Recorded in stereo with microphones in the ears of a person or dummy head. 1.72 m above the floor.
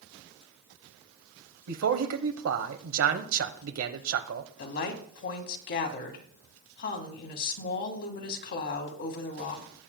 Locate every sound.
1.7 s a man speaking: 65° right (ahead or behind), 1.1 m
4.6 s a woman speaking: 50° left (ahead or behind), 1.8 m